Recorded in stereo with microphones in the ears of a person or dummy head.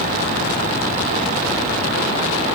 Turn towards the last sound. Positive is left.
No sound to turn to.